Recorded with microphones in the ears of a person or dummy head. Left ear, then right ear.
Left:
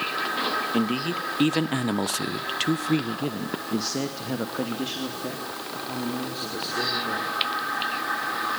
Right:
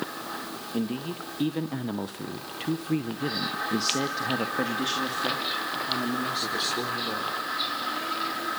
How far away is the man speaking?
About 1.8 m.